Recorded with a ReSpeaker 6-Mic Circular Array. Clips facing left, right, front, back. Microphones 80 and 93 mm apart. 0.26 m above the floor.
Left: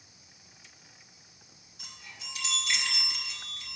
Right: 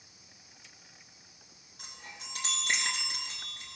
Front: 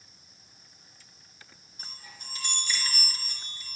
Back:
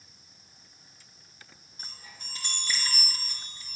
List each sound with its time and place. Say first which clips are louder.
1.8 s a chime: right 1 dB, front 1 dB; 130° right, 4 m